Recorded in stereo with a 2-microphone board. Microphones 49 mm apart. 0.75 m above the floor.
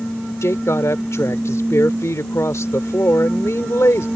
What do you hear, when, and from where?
0.4 s a woman speaking: 75° left (ahead or behind)